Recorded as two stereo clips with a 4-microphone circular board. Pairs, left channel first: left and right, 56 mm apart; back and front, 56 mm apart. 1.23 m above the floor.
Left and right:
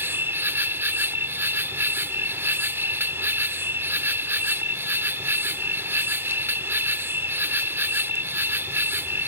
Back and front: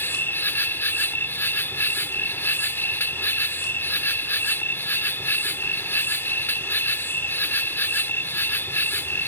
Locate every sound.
0.0 s an insect: 135° right